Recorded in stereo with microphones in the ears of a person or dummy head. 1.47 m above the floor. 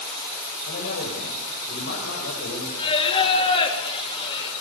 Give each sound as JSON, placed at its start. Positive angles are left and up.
{"t": 0.7, "sound": "a man speaking", "side_deg": 60, "distance_m": 5.5}
{"t": 2.8, "sound": "singing", "side_deg": 30, "distance_m": 3.0}